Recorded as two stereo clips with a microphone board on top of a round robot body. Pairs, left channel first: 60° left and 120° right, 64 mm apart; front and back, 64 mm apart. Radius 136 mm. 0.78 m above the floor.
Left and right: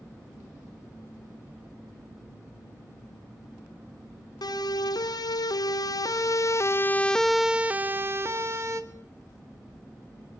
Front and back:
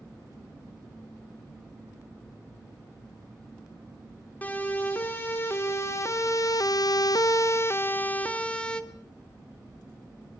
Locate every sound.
4.4 s a siren: 65° left, 3 m; by 8.8 s 80° right, 2.5 m